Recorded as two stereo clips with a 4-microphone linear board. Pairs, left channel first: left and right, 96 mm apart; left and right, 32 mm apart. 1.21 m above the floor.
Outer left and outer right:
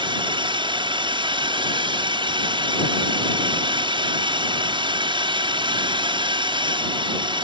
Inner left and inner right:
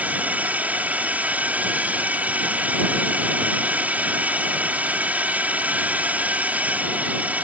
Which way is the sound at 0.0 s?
65° right (ahead or behind).